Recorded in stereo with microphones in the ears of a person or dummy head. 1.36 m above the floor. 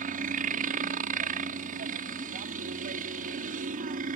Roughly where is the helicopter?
Right.